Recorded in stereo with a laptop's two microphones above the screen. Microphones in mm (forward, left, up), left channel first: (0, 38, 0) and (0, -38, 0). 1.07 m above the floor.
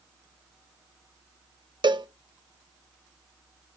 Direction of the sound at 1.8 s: 80° right.